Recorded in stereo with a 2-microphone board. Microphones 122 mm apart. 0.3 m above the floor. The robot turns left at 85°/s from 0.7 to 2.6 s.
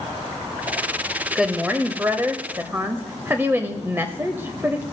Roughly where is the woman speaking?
Centre.